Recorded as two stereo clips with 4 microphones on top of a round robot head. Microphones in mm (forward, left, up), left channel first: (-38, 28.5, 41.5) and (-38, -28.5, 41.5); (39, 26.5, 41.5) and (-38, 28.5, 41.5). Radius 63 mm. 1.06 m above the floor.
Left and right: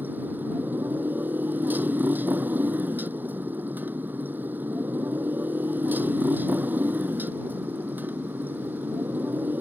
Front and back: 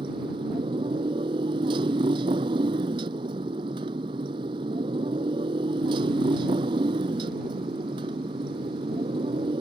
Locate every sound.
0.0 s a motorcycle: 150° right